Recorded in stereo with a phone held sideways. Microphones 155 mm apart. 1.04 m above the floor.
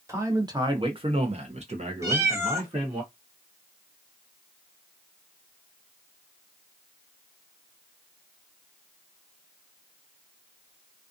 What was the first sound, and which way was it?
A man speaking, 20° right (ahead or behind).